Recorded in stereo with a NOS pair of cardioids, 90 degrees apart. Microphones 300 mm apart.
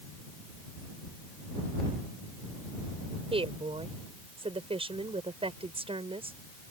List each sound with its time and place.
3.3 s a woman speaking: 20° right